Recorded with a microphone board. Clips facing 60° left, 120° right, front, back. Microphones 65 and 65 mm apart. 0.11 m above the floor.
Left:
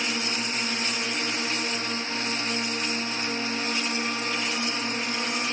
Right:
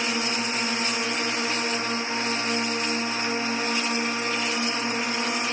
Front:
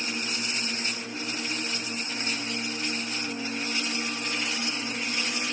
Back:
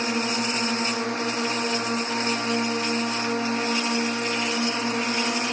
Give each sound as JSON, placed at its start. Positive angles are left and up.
{"t": 0.0, "sound": "a drone", "azimuth_deg": 170}